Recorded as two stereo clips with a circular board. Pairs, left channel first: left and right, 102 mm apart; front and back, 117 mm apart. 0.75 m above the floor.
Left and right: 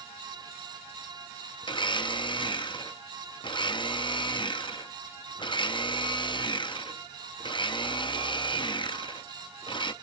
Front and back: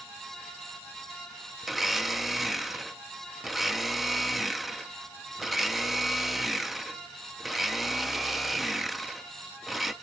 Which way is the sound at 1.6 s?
90° left.